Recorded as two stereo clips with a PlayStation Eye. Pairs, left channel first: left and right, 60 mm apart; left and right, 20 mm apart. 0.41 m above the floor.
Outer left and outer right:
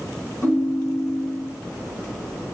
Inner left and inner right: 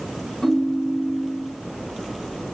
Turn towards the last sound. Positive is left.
turn(degrees=50)  # may be behind; listen again after turning